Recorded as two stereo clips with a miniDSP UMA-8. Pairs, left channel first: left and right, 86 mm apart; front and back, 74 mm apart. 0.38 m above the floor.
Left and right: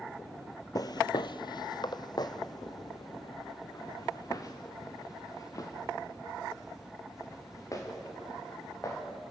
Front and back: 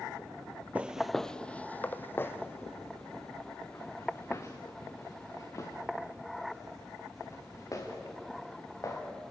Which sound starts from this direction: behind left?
Footsteps, at 0.8 s.